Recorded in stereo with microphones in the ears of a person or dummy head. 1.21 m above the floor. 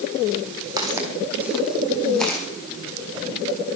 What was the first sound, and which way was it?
Footsteps, 25° right (ahead or behind).